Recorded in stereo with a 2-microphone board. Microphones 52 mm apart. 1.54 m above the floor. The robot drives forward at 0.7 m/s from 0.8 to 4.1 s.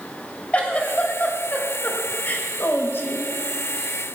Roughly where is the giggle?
Left.